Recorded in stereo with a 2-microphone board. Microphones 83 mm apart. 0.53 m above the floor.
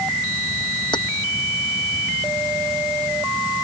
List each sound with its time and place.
0.9 s keys jangling: 75° left (ahead or behind)